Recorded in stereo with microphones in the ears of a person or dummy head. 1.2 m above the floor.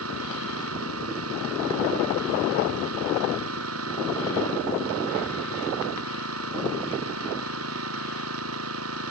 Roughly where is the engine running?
Right.